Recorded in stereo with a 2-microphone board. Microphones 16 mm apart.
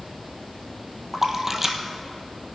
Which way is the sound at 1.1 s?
20° right (ahead or behind).